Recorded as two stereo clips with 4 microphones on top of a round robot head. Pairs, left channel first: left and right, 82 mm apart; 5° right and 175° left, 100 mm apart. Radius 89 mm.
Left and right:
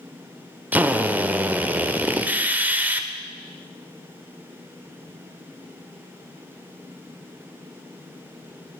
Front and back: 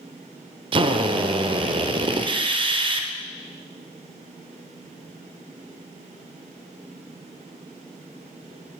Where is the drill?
160° right, 0.8 m.